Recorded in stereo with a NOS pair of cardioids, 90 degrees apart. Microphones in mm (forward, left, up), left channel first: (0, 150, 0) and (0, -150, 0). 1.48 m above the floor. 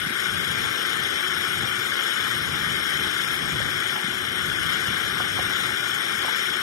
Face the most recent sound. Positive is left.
turn(degrees=70)